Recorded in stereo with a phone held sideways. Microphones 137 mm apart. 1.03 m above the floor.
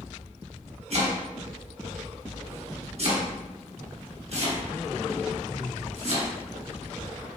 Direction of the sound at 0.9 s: 50° right (ahead or behind).